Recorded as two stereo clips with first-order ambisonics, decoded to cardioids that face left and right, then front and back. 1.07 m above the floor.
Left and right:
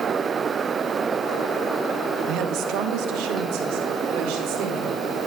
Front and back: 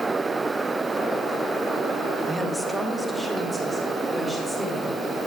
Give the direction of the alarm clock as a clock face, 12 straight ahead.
No alarm clock in this recording.